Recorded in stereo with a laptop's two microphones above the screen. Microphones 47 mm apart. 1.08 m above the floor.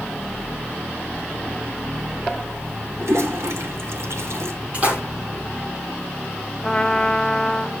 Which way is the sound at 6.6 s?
10° left (ahead or behind).